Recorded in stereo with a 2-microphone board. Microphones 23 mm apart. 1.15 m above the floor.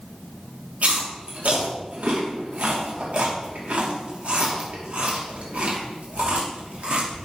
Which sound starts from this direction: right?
Chewing, at 0.8 s.